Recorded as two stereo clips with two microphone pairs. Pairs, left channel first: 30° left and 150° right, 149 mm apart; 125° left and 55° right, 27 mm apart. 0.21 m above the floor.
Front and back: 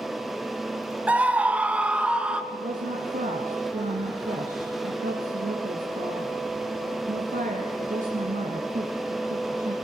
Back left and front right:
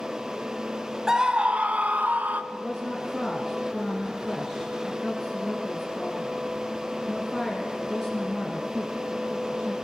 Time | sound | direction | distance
1.1 | a scream | 90° right | 0.9 m
2.5 | a woman speaking | 140° right | 3 m